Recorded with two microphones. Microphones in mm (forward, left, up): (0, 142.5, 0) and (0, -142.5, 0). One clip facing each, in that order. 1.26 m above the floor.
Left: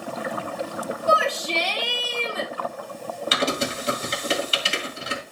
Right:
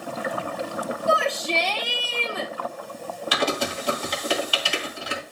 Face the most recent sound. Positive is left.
turn(degrees=25)  # may be behind; listen again after turning